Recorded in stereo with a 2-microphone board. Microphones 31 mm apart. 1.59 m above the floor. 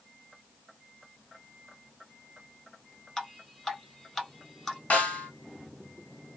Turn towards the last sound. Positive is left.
turn(degrees=55)  # may be behind; listen again after turning